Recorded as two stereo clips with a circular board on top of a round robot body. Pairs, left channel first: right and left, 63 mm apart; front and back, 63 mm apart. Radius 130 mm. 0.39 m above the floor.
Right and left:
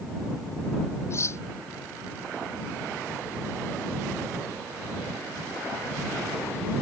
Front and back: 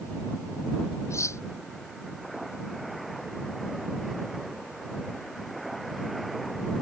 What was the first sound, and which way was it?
Cutlery clinking, 45° right.